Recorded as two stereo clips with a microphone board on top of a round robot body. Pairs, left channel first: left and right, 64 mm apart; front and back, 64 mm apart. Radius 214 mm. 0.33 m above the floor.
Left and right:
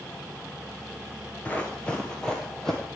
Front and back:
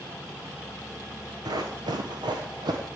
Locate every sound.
1.4 s running footsteps: 160° left, 0.5 m; by 2.8 s 175° left, 1.4 m